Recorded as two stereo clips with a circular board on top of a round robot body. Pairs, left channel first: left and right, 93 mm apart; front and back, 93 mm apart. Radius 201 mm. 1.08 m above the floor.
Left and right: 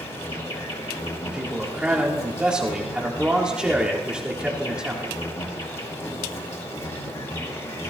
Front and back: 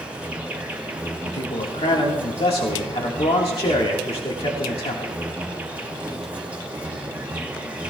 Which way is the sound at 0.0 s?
110° left.